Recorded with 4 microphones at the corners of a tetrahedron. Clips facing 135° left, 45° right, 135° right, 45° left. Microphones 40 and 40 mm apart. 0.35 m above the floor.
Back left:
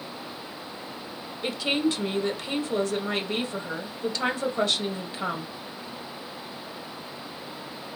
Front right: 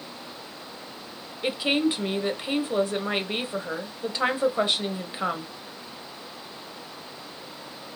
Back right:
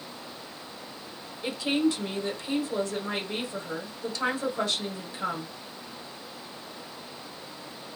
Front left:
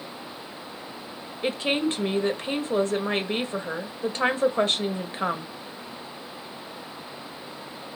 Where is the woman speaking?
15° left, 1.3 m.